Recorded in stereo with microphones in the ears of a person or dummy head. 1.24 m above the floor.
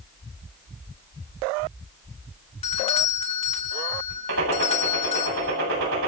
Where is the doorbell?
30° left (ahead or behind), 2 m.